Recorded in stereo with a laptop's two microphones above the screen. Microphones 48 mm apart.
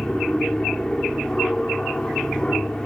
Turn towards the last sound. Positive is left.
turn(degrees=15)  # may be behind; listen again after turning